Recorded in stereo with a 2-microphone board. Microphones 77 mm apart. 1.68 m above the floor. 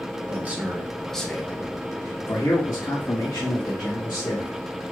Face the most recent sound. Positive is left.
turn(degrees=70)  # may be behind; listen again after turning